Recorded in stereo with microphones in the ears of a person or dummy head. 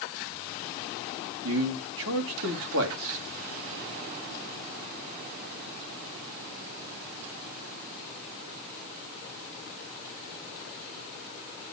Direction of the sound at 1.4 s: 75° right (ahead or behind).